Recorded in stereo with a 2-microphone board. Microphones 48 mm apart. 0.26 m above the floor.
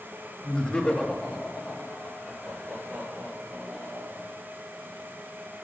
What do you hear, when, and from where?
0.4 s laughter: 20° left (ahead or behind), 0.9 m; by 4.3 s centre (ahead or behind), 4.5 m